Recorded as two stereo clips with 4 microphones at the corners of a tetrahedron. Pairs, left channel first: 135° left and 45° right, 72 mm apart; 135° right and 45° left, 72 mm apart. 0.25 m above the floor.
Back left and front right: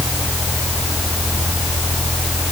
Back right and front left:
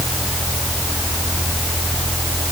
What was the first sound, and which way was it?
Only background noise.